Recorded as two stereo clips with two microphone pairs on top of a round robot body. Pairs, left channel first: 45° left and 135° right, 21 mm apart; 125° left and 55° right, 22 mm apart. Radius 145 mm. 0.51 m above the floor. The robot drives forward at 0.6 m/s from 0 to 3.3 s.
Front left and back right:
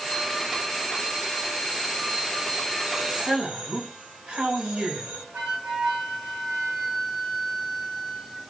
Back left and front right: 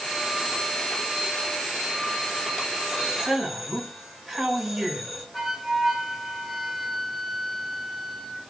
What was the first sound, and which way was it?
A man speaking, 125° right.